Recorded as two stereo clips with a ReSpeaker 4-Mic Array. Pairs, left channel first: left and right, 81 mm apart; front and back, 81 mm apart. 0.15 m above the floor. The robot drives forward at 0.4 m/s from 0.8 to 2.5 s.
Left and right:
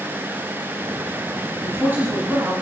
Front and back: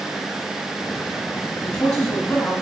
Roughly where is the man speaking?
Ahead right.